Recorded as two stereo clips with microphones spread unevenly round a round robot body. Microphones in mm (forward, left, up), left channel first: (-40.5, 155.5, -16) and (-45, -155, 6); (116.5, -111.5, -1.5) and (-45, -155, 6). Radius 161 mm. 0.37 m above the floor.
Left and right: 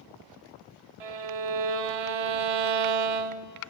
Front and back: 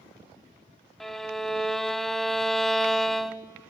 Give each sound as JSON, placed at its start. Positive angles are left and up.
{"t": 1.0, "sound": "a violin", "azimuth_deg": -75, "distance_m": 0.7}